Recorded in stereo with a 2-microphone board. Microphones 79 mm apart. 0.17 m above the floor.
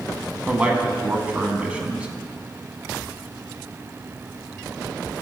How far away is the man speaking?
About 1.1 m.